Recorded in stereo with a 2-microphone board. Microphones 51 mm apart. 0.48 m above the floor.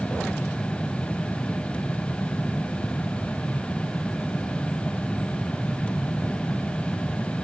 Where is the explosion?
No explosion in this recording.